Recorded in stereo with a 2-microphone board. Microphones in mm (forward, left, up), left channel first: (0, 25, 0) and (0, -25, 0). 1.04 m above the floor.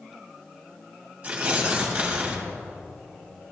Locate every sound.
1.2 s tearing paper: 25° right (ahead or behind), 1.6 m